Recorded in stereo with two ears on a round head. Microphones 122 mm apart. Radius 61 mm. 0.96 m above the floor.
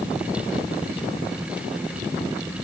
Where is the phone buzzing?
I don't hear a phone buzzing.